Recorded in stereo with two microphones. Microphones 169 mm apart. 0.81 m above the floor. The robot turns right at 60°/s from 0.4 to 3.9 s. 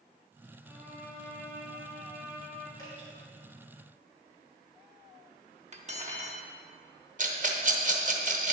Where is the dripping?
20° left (ahead or behind), 2.5 m; by 3.1 s 40° left (ahead or behind), 2.5 m.